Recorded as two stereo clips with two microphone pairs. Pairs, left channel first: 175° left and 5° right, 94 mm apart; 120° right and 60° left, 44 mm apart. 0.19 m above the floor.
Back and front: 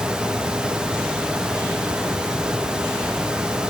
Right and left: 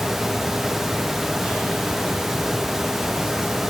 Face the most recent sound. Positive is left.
No sound to turn to.